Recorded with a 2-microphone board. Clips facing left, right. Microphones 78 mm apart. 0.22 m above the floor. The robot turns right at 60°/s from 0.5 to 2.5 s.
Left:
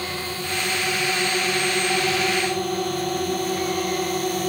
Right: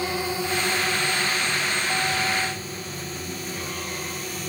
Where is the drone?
15° right (ahead or behind); by 4.5 s 55° left (ahead or behind).